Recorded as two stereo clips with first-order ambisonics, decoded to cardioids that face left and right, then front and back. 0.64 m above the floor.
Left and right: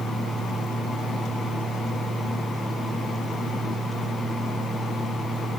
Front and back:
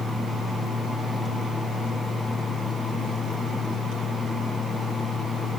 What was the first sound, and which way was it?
Only background noise.